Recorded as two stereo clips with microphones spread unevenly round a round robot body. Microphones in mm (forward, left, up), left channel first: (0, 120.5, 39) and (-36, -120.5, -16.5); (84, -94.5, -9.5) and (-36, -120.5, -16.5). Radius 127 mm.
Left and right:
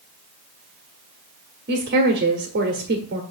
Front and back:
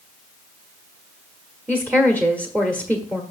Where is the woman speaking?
105° right, 1.2 m.